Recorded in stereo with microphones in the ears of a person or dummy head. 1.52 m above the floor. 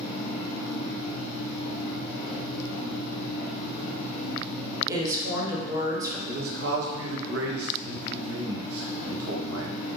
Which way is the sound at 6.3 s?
70° right (ahead or behind).